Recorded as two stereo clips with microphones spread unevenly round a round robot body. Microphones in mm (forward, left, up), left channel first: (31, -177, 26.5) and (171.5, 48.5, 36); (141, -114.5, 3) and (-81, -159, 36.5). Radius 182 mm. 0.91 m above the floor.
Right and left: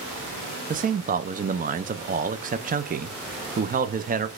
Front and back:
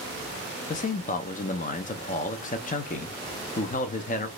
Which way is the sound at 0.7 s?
10° left.